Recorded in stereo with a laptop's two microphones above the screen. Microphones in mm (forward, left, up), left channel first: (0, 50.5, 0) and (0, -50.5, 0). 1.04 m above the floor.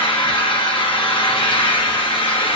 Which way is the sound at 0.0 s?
60° left (ahead or behind).